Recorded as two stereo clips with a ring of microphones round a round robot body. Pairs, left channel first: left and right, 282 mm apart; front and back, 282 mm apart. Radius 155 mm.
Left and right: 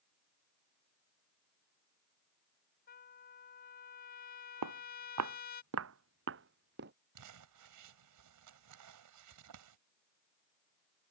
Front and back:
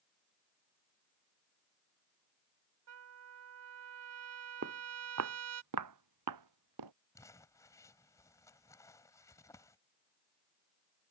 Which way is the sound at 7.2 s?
80° right.